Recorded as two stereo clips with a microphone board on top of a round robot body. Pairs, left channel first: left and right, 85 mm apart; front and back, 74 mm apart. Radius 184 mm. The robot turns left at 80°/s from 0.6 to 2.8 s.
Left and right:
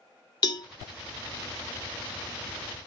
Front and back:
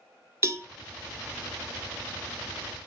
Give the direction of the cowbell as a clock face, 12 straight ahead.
8 o'clock.